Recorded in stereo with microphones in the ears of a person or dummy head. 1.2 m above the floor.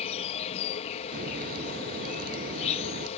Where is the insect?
35° left (ahead or behind).